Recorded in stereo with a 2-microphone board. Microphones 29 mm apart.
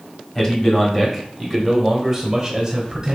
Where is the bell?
No bell in this recording.